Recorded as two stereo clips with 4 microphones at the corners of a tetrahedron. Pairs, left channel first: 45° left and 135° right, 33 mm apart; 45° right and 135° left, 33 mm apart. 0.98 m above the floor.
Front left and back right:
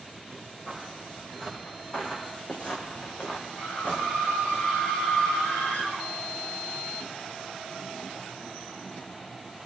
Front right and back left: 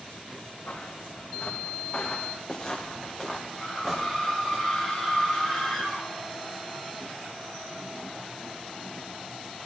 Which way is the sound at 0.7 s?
30° right.